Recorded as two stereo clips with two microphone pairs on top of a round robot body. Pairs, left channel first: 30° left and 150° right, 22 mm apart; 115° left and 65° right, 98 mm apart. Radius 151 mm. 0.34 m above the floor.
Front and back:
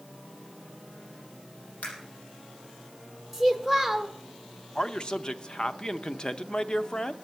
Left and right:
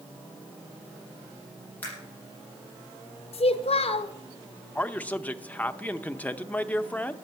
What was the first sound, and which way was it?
A camera shutter, 45° left.